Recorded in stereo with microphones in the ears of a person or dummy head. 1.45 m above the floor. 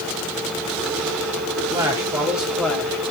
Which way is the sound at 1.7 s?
25° right (ahead or behind).